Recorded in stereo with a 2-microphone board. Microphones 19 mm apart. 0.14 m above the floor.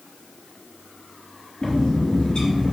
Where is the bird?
50° left (ahead or behind), 4 m.